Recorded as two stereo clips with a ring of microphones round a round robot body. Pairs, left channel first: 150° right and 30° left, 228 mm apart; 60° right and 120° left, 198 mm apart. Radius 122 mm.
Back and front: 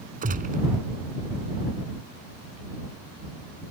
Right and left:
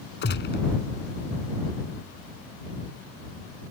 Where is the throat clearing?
I don't hear throat clearing.